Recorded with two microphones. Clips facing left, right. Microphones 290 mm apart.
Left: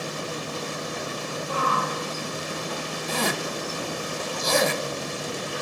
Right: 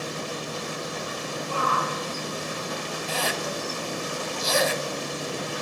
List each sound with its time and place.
1.5 s a shout: 20° left (ahead or behind), 6 m
3.1 s a zipper: 55° left (ahead or behind), 1.5 m